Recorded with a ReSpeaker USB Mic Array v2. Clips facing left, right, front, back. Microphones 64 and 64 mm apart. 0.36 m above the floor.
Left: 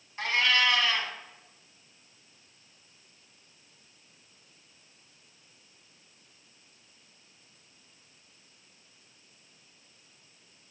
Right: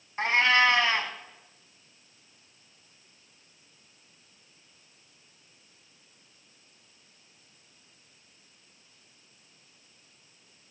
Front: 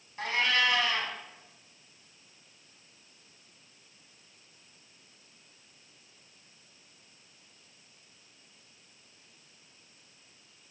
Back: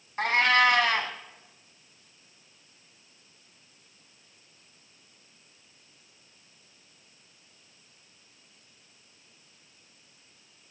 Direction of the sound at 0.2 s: 150° right.